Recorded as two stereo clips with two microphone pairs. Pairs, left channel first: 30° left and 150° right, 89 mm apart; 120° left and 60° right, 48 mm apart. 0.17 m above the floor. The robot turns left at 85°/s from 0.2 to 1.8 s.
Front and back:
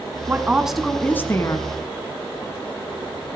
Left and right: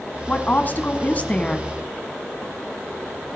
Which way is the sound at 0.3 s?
160° left.